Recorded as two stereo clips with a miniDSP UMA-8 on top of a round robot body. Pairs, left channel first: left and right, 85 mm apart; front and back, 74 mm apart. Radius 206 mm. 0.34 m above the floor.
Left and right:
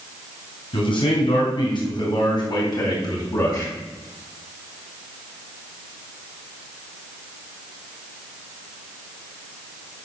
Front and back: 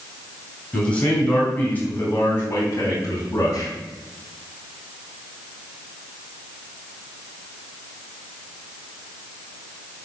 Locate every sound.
0.7 s a man speaking: 75° left, 4 m; by 3.7 s 40° left, 4 m